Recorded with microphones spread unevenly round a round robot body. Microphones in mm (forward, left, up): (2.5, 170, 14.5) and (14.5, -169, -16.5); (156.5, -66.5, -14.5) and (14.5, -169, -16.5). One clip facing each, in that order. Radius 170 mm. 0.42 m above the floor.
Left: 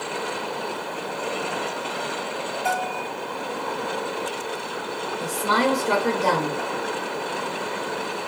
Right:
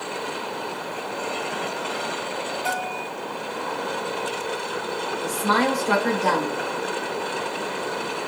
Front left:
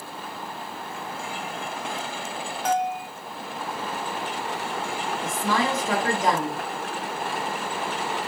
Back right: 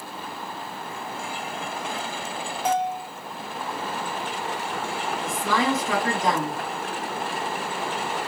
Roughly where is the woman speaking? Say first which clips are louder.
Even, even; ahead left.